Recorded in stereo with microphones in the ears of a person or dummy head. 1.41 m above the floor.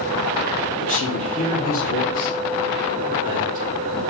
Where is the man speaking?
35° left (ahead or behind), 1.1 m; by 4.0 s 45° left (ahead or behind), 4 m.